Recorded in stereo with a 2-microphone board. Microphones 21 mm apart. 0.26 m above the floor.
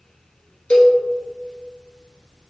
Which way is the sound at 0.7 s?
55° left (ahead or behind).